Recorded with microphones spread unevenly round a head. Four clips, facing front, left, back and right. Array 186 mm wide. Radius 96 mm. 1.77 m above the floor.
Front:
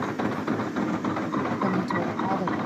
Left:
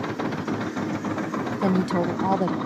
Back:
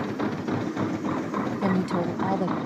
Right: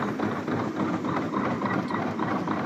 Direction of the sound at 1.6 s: 120° left.